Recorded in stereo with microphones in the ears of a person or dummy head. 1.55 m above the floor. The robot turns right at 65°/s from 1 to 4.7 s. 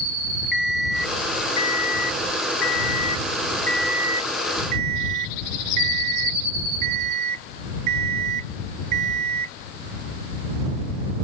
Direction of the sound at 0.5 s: 5° right.